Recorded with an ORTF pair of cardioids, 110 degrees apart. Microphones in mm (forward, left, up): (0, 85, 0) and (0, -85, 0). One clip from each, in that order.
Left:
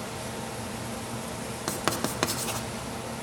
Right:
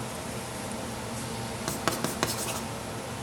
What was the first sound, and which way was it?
Writing, 5° left.